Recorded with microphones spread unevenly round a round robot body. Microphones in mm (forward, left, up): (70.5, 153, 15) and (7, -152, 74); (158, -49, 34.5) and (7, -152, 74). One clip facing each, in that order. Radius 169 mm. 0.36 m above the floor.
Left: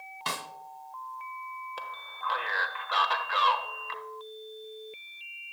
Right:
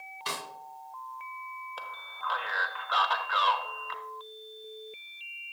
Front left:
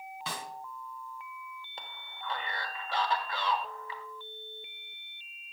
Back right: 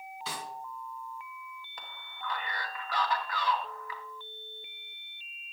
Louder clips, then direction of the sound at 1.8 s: Left 1 dB, back right 3 dB; 60° left.